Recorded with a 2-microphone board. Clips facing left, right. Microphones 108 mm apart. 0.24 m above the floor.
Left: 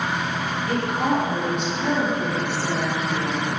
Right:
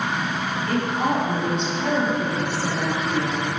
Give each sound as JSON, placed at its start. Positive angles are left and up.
{"t": 0.7, "sound": "a woman speaking", "side_deg": 15, "distance_m": 1.2}